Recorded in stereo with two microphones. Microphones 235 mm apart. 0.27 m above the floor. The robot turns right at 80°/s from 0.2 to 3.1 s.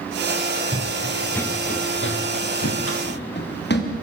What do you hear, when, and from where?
0.7 s running footsteps: 20° right (ahead or behind), 0.8 m; by 3.9 s 45° left (ahead or behind), 5 m